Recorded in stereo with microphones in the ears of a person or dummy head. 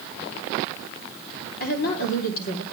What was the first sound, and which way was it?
A woman speaking, 45° left (ahead or behind).